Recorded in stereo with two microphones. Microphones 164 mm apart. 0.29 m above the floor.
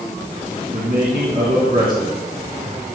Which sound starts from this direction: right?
A man speaking, at 0.7 s.